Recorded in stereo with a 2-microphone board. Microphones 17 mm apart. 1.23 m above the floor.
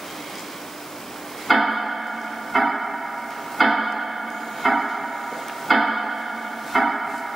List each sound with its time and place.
1.5 s ticking: 10° right (ahead or behind), 1.8 m